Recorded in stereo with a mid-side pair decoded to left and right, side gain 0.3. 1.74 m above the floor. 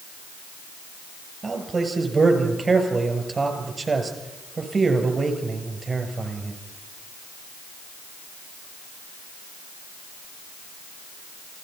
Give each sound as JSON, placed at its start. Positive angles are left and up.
{"t": 1.4, "sound": "a man speaking", "azimuth_deg": -40, "distance_m": 7.5}